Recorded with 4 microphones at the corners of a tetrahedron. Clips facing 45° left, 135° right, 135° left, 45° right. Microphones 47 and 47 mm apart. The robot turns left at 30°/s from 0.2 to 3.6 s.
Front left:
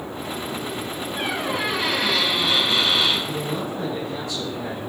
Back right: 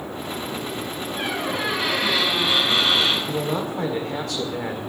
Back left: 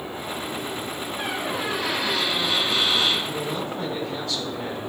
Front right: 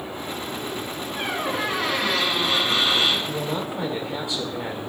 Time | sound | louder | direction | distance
1.2 | a squeak | front left 1 dB, front right 3 dB | 35° right | 3.5 m
3.3 | a man speaking | back right 2 dB, front right 1 dB | 105° right | 1.8 m